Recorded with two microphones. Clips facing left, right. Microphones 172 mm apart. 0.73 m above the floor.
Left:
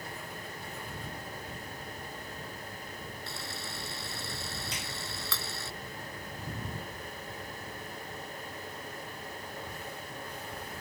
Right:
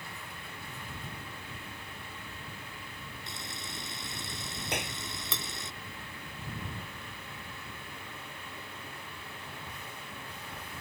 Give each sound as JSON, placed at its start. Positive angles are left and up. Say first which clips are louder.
{"t": 3.3, "sound": "a camera shutter", "louder": "left 2 dB", "side_deg": -20}
{"t": 4.7, "sound": "a clap", "louder": "right 6 dB", "side_deg": -75}